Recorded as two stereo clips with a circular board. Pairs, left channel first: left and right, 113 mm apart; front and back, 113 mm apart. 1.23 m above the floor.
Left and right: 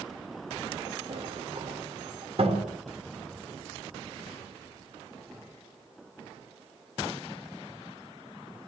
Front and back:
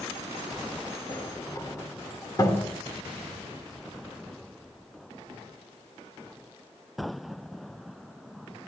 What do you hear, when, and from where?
1.1 s a sliding door: 55° right, 4 m